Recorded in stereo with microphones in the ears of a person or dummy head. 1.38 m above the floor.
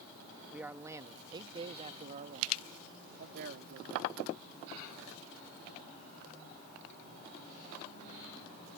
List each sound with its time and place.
0.5 s a man speaking: 5° right (ahead or behind); by 4.2 s 60° right (ahead or behind)